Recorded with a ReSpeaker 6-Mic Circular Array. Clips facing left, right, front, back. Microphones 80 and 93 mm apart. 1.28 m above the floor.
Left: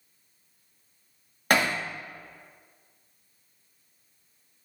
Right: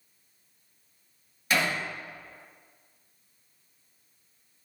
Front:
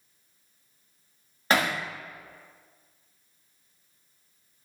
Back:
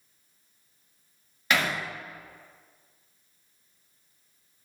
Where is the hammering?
55° left, 1.8 m.